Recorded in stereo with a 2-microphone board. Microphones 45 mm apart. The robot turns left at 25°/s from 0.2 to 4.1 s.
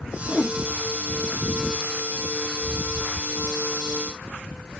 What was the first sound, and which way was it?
A whoosh, 10° left (ahead or behind).